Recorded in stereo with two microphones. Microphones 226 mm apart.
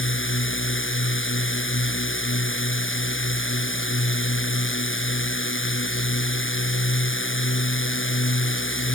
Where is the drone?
60° left (ahead or behind).